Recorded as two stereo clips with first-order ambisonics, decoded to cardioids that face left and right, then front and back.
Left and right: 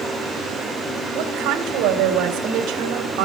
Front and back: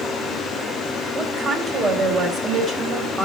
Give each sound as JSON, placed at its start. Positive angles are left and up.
{"t": 1.1, "sound": "a woman speaking", "azimuth_deg": -115, "distance_m": 4.0}